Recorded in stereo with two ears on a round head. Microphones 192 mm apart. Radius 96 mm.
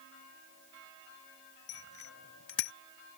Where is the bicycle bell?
75° left (ahead or behind); by 2.7 s 65° left (ahead or behind).